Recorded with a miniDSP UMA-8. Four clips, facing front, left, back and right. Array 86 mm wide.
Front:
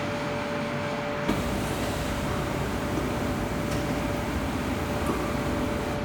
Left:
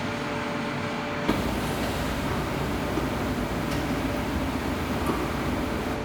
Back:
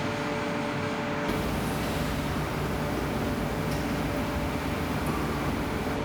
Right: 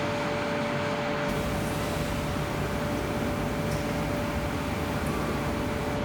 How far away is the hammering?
About 1.8 m.